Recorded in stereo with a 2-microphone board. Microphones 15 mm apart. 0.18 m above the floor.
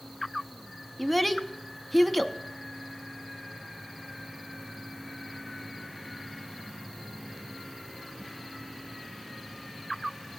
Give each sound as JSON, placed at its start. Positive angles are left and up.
{"t": 1.0, "sound": "a child speaking", "side_deg": 5, "distance_m": 0.7}